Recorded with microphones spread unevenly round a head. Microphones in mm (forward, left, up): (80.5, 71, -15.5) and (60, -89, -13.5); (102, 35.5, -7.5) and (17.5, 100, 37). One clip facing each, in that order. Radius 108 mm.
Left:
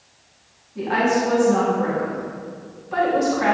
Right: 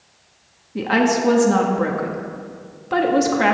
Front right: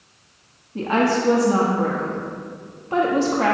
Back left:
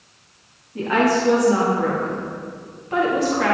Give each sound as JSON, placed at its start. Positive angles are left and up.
{"t": 0.8, "sound": "a woman speaking", "azimuth_deg": -95, "distance_m": 1.3}